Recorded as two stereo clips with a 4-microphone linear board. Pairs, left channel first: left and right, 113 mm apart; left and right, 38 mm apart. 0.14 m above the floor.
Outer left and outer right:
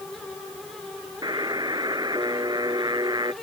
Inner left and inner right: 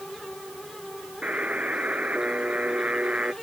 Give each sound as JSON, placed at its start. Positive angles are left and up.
{"t": 1.2, "sound": "a buzzer", "side_deg": -40}